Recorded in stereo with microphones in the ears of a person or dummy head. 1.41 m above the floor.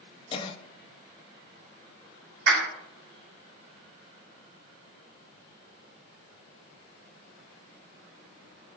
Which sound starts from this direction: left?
A cough, at 0.3 s.